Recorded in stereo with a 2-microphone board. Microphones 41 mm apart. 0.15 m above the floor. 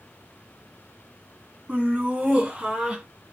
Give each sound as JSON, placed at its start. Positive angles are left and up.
{"t": 1.7, "sound": "laughter", "side_deg": -20, "distance_m": 1.6}